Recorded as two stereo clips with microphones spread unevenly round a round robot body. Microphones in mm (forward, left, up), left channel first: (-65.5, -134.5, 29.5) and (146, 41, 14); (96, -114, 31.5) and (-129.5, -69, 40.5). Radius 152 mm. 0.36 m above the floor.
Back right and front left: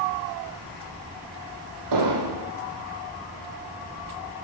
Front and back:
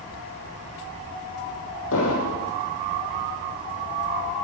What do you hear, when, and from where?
1.9 s an explosion: 40° left, 6 m